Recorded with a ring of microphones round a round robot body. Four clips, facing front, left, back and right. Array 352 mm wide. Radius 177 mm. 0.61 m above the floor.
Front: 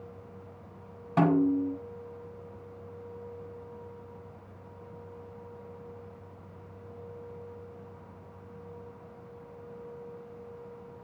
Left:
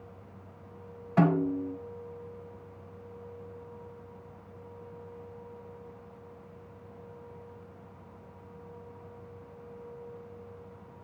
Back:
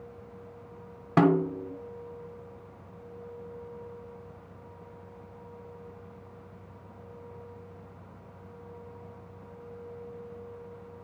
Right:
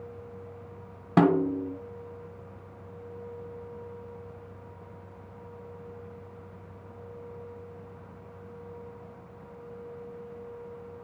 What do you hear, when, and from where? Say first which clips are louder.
1.2 s a snare drum: right 3 dB, back 1 dB; 110° right, 2 m